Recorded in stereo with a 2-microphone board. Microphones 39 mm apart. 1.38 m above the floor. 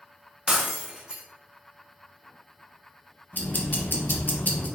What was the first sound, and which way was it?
Breaking glass, 20° right (ahead or behind).